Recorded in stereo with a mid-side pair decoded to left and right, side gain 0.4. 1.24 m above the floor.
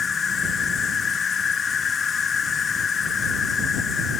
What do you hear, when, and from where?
0.0 s an insect: 50° left